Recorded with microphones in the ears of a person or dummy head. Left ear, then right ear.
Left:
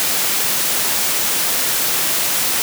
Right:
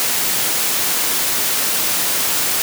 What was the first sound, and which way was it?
Only background noise.